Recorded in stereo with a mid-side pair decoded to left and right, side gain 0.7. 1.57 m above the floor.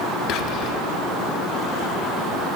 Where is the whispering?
55° left, 1.6 m.